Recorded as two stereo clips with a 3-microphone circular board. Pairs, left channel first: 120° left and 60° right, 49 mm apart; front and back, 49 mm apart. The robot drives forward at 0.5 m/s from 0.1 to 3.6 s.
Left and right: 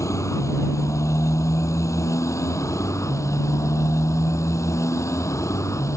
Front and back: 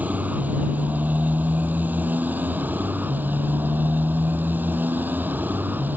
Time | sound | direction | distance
0.0 | a motorcycle | 125° left | ?